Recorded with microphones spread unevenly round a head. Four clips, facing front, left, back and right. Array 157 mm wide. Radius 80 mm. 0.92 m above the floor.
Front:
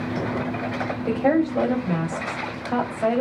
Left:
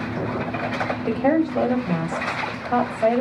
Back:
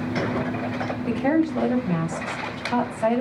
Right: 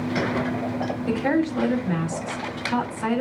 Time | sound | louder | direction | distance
1.1 | a woman speaking | left 3 dB, front 1 dB | 45° left | 5 m